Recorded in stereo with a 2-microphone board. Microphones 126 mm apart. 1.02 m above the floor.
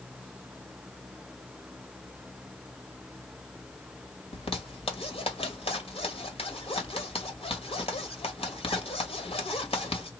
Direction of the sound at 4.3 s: 50° left (ahead or behind).